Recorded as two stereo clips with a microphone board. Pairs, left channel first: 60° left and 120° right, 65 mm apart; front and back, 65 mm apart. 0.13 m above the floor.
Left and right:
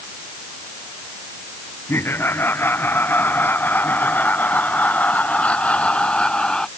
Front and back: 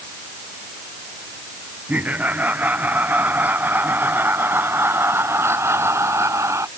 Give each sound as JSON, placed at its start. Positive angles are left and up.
{"t": 1.9, "sound": "laughter", "azimuth_deg": 115}